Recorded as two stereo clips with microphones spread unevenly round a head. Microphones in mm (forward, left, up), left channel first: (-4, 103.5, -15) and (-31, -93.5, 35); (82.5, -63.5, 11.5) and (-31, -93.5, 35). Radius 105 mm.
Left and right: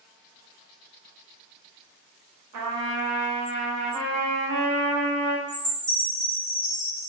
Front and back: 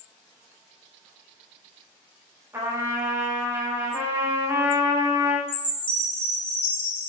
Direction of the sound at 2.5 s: 95° right.